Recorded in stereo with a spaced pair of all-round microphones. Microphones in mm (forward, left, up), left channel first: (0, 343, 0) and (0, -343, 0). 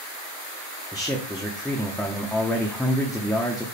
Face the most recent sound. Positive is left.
turn(degrees=0)  # may be behind; listen again after turning